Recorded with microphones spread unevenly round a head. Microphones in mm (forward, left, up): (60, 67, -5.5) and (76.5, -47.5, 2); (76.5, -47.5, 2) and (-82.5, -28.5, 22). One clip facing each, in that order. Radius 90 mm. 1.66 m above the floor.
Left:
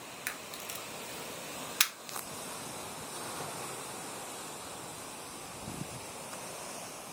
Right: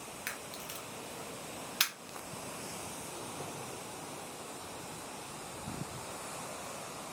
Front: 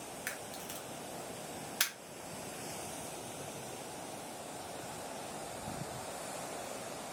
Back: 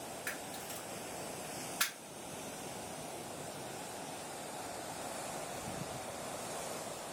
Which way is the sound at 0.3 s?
60° left.